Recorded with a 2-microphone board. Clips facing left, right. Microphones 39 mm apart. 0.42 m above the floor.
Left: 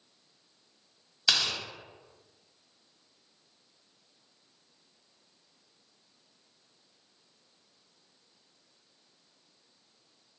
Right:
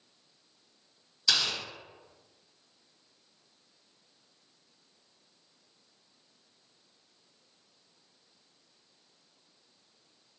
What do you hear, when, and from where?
1.3 s tearing paper: 40° left (ahead or behind), 1.2 m